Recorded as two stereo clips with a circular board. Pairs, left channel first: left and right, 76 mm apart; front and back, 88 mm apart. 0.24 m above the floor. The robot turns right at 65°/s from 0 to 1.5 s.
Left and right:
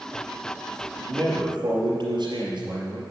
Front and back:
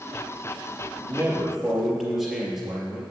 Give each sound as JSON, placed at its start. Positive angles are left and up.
{"t": 1.0, "sound": "a man speaking", "azimuth_deg": -125, "distance_m": 4.5}